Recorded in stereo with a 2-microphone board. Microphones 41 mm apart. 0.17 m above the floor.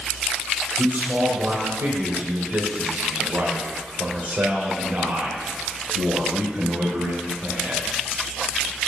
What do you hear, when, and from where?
0.8 s a man speaking: 45° right (ahead or behind), 4.5 m